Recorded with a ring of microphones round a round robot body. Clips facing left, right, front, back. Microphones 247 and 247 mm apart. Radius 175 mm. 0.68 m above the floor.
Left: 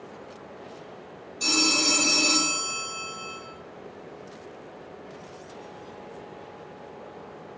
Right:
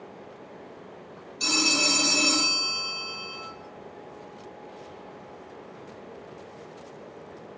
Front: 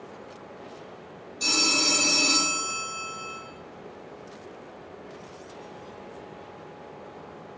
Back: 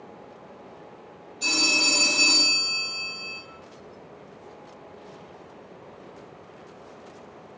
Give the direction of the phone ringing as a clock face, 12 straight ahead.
2 o'clock.